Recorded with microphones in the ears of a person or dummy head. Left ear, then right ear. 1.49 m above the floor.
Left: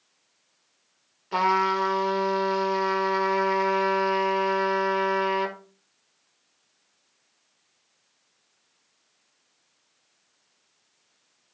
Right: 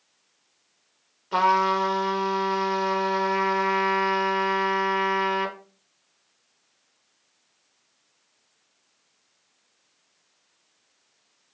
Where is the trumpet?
5° left (ahead or behind), 1.6 m.